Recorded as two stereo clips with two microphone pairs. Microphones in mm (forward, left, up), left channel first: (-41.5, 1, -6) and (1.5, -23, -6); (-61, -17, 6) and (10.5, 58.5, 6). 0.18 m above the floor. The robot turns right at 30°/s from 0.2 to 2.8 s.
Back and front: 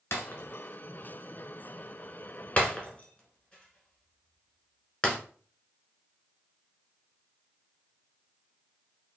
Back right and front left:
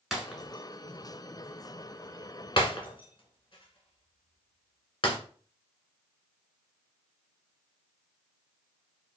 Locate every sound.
0.1 s breaking glass: 135° left, 1.1 m; by 5.2 s 150° right, 1.1 m